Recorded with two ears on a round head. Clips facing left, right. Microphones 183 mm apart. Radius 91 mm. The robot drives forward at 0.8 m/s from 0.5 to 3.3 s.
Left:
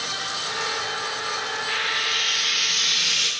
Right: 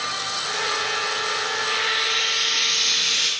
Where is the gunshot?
No gunshot in this recording.